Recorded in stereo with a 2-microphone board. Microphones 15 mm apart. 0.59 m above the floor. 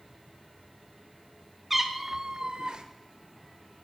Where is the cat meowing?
15° right (ahead or behind), 1.1 m; by 2.9 s 75° right (ahead or behind), 1.1 m.